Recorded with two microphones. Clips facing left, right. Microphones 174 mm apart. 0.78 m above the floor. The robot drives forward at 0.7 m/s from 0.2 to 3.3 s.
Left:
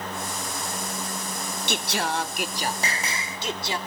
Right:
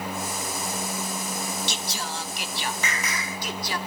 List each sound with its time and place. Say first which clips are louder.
1.7 s singing: left 6 dB; 60° left (ahead or behind), 0.5 m; by 3.8 s 25° left (ahead or behind), 1.0 m